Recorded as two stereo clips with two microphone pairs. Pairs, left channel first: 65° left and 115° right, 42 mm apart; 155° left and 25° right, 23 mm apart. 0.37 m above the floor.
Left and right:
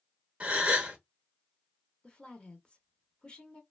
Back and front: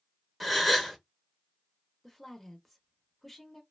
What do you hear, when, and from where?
0.4 s a gasp: 105° right, 0.8 m
2.0 s a woman speaking: 80° left, 0.8 m